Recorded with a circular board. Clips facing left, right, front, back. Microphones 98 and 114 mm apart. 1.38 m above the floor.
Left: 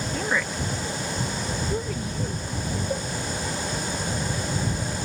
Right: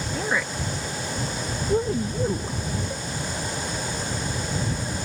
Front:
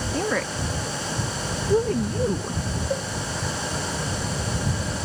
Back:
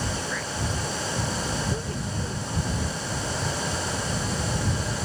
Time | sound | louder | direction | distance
0.1 | a woman speaking | right 1 dB, front 6 dB | 5° right | ?
2.9 | a cowbell | left 5 dB, front 8 dB | 25° left | ?